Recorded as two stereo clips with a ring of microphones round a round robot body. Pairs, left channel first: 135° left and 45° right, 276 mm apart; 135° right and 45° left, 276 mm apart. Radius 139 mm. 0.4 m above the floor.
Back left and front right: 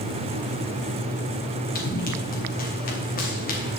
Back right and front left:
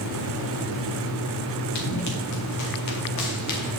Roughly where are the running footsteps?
Behind.